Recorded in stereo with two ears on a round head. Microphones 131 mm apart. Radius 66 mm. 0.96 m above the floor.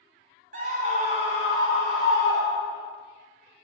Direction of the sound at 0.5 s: 55° right (ahead or behind).